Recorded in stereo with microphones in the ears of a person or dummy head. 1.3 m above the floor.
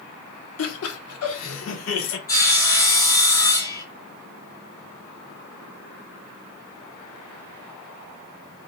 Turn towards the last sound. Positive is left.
turn(degrees=15)  # may be behind; listen again after turning